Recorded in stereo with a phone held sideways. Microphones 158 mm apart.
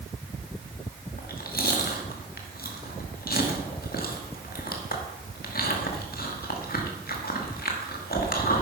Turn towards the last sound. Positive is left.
turn(degrees=65)  # may be behind; listen again after turning